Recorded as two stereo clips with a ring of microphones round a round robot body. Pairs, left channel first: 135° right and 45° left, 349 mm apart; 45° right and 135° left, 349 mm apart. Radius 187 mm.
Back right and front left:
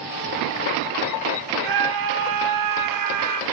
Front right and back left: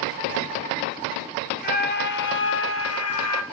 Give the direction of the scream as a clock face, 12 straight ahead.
11 o'clock.